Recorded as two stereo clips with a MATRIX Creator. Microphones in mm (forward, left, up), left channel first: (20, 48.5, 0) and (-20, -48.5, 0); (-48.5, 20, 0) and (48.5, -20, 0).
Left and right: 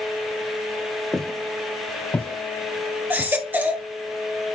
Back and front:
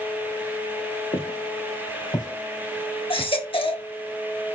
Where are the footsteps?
155° left, 2.5 m; by 3.3 s 80° left, 1.4 m.